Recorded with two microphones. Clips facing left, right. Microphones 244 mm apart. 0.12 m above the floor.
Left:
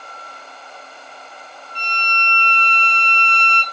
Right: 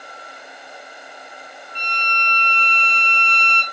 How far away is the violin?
About 0.9 m.